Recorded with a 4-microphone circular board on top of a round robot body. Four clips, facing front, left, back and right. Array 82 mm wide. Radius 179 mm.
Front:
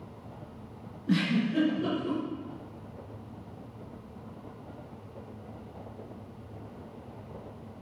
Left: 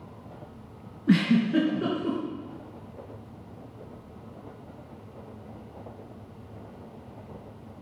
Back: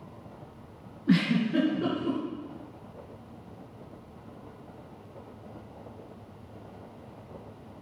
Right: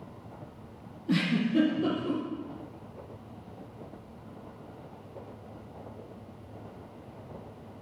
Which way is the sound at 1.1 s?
120° left.